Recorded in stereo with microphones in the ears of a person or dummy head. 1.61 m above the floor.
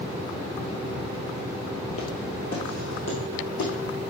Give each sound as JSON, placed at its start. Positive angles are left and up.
{"t": 1.9, "sound": "footsteps", "side_deg": 35, "distance_m": 1.9}